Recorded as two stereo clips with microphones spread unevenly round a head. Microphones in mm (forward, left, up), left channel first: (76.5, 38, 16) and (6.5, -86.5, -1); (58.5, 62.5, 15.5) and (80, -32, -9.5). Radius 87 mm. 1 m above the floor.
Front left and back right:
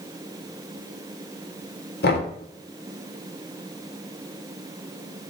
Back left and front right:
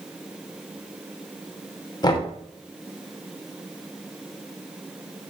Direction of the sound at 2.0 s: 55° left.